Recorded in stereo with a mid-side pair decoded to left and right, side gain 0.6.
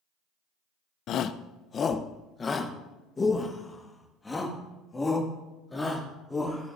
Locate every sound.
1.1 s a shout: 55° left, 0.6 m; by 6.8 s 10° left, 3.5 m